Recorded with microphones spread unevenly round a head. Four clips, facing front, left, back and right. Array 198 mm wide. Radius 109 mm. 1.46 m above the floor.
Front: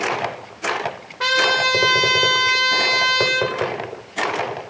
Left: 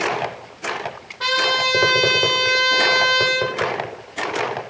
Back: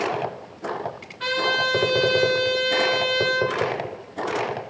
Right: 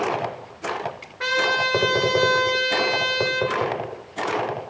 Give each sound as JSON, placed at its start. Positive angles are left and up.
{"t": 1.2, "sound": "a trumpet", "azimuth_deg": 0, "distance_m": 1.6}